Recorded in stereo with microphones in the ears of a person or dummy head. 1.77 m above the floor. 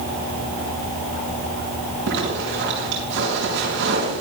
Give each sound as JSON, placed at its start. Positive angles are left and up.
{"t": 2.1, "sound": "a zipper", "side_deg": -65, "distance_m": 6.5}